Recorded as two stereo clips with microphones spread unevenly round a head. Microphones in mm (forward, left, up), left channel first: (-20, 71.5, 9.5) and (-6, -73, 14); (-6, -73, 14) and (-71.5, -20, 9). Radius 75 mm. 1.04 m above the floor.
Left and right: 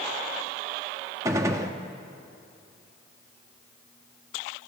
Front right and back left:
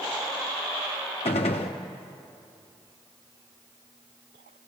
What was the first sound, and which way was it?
A gunshot, 10° right.